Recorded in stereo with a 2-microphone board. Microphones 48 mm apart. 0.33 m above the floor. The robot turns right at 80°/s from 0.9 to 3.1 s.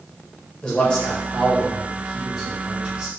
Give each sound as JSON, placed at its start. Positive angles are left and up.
{"t": 0.6, "sound": "a man speaking", "side_deg": 20, "distance_m": 1.0}